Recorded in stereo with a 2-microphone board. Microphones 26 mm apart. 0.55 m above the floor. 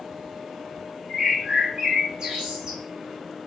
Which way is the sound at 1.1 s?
40° right (ahead or behind).